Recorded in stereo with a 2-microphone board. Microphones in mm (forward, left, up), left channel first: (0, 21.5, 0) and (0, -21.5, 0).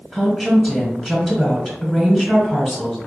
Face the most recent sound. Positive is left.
turn(degrees=10)  # may be behind; listen again after turning